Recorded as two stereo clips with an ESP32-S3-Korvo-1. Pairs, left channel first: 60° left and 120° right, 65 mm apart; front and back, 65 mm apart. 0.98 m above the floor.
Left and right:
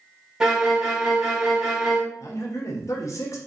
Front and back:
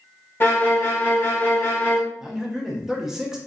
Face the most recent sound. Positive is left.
turn(degrees=100)